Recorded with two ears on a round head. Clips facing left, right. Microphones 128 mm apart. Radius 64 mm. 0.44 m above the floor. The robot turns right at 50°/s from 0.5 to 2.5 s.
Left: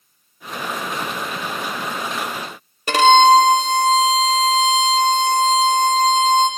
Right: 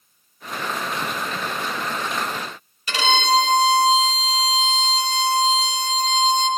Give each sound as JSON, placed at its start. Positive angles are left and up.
{"t": 2.9, "sound": "a violin", "side_deg": 40, "distance_m": 0.6}